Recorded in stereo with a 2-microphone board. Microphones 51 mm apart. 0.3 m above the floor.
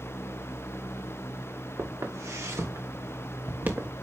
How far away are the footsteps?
About 2.5 m.